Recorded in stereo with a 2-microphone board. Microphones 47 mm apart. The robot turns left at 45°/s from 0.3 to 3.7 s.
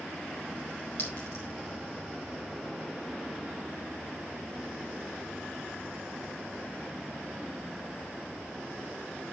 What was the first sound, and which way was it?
A clink, 55° left (ahead or behind).